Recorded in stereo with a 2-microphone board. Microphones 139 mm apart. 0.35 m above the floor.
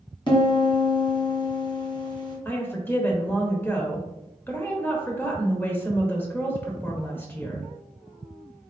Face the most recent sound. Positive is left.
turn(degrees=15)  # may be behind; listen again after turning